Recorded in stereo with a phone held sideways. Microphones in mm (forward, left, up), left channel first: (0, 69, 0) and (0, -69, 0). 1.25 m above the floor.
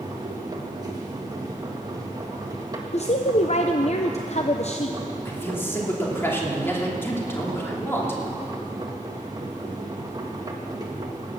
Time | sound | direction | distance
0.0 | a machine running | 30° right (ahead or behind) | 1.8 m
2.9 | a woman speaking | 55° left (ahead or behind) | 0.6 m
5.2 | a man speaking | 15° left (ahead or behind) | 2.5 m